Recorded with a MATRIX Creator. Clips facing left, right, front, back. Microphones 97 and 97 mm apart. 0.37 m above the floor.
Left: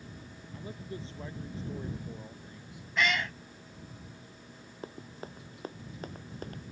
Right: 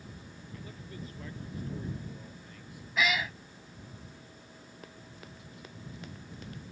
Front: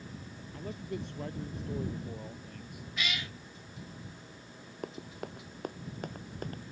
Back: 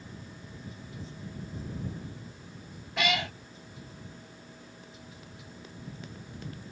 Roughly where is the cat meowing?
Behind.